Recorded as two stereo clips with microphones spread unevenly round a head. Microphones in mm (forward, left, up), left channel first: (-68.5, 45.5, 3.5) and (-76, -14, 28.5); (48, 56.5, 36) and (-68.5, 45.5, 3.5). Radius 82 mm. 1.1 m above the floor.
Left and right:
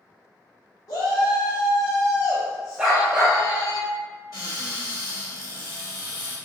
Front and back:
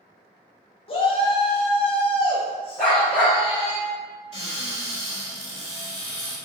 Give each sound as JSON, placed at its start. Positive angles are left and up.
{"t": 0.9, "sound": "a shout", "azimuth_deg": 50, "distance_m": 0.8}
{"t": 2.8, "sound": "a dog barking", "azimuth_deg": -55, "distance_m": 0.6}
{"t": 4.3, "sound": "a cupboard door", "azimuth_deg": 40, "distance_m": 1.8}